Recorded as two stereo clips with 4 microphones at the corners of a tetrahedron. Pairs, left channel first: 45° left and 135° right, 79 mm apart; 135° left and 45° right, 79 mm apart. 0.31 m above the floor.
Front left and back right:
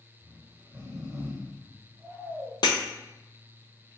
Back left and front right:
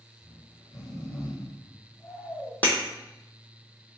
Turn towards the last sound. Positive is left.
turn(degrees=65)